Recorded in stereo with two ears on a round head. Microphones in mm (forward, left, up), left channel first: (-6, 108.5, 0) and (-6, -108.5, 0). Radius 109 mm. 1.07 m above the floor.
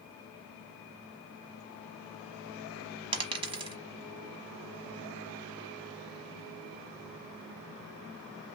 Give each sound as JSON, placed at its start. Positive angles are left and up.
{"t": 3.1, "sound": "a dropped coin", "side_deg": -20, "distance_m": 1.0}